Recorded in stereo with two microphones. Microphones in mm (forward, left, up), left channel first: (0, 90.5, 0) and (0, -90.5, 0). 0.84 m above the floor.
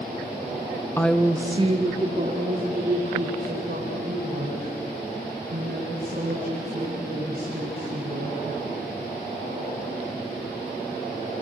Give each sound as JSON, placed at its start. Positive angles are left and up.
{"t": 1.0, "sound": "a woman speaking", "side_deg": 15, "distance_m": 1.0}